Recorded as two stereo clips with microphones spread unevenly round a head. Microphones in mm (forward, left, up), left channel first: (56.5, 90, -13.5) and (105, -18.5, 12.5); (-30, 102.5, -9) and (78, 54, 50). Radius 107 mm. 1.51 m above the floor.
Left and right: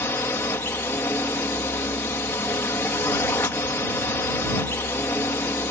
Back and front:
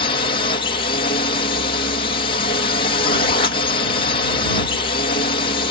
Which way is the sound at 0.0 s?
165° right.